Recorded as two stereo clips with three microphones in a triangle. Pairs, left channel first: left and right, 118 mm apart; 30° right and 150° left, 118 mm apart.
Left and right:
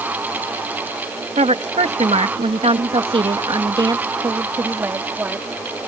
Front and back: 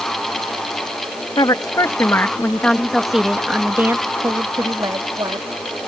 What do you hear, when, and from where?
1.4 s a woman speaking: 80° right; by 5.5 s 165° right